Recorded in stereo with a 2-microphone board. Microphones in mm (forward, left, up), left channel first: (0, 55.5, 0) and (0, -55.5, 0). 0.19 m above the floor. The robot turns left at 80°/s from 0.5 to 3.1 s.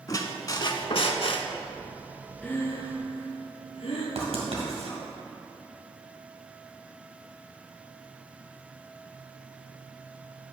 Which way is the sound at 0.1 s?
140° left.